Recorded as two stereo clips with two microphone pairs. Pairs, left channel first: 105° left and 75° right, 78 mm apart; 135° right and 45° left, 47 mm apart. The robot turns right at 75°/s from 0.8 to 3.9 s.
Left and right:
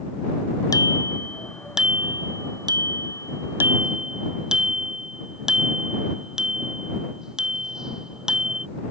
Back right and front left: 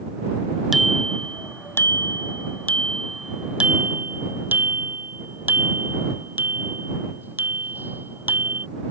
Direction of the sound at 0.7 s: 130° left.